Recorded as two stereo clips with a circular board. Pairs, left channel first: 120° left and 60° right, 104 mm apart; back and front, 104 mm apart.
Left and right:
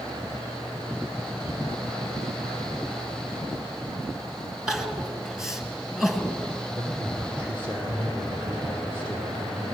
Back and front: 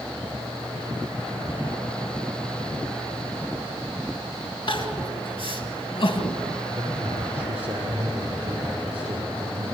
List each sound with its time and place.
4.7 s crying: 145° right, 1.9 m
6.7 s a man speaking: 10° left, 7 m